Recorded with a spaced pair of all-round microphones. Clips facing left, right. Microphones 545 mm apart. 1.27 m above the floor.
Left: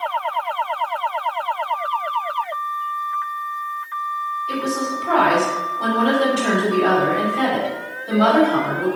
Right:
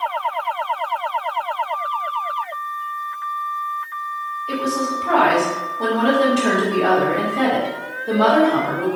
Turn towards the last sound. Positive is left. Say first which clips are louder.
# right 1 dB
turn(degrees=-70)  # may be behind; listen again after turning